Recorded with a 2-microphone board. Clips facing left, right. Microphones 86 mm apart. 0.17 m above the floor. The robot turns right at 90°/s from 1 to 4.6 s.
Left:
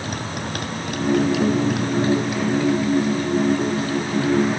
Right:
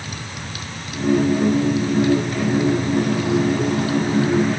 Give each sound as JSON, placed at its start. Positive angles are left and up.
{"t": 0.0, "sound": "a motorcycle", "side_deg": 55}